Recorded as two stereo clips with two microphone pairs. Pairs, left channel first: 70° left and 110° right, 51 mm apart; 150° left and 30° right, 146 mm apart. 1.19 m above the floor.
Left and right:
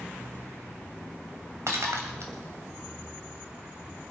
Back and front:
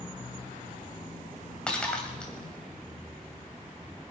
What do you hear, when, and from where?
1.7 s breaking glass: 125° right, 2.5 m